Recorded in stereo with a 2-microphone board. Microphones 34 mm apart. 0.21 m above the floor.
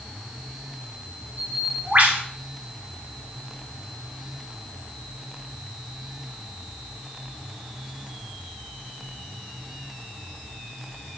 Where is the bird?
60° right (ahead or behind), 2 m.